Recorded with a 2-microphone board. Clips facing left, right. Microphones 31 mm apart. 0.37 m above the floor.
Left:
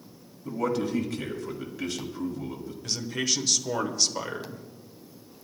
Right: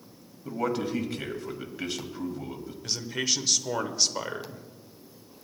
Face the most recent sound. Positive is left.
turn(degrees=-10)  # may be behind; listen again after turning